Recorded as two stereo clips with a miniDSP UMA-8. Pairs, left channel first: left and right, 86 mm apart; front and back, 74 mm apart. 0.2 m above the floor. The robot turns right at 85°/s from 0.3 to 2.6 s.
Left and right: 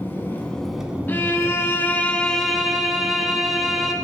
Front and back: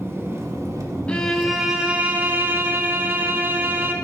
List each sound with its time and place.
0.0 s an engine running: 145° left, 0.8 m; by 4.0 s 20° right, 0.8 m
1.1 s a violin: 55° left, 0.6 m; by 3.9 s 175° right, 0.6 m